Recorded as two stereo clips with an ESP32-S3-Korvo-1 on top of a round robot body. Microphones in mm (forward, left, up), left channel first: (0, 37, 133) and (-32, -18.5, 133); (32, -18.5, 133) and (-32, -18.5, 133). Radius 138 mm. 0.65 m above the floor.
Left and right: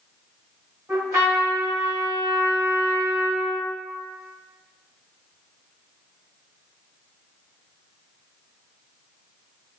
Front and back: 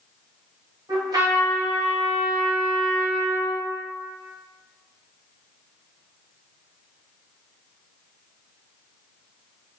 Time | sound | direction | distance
0.9 | a trumpet | 165° right | 1.1 m